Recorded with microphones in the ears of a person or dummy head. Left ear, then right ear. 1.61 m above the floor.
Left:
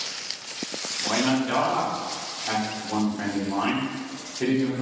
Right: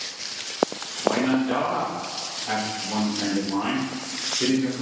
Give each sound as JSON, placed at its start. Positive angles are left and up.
{"t": 1.0, "sound": "a man speaking", "side_deg": 15, "distance_m": 1.1}